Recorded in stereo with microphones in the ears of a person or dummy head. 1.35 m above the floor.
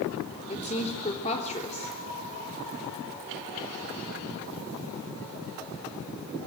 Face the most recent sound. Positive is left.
turn(degrees=30)  # may be behind; listen again after turning